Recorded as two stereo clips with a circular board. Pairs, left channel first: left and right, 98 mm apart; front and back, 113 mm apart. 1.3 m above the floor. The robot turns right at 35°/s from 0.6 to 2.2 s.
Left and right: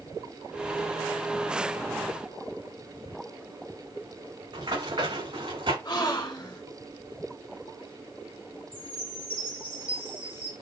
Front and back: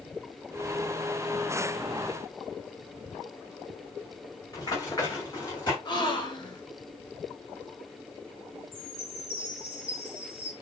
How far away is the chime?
About 4 m.